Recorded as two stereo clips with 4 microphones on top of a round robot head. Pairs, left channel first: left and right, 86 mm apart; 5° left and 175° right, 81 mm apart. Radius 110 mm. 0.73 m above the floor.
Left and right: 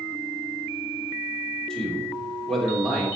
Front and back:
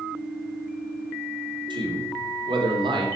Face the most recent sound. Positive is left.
turn(degrees=175)